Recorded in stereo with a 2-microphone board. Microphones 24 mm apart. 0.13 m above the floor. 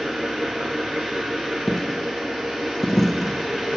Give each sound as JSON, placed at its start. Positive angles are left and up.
{"t": 0.0, "sound": "an engine running", "side_deg": -70, "distance_m": 5.5}
{"t": 1.7, "sound": "a dropped coin", "side_deg": 10, "distance_m": 0.7}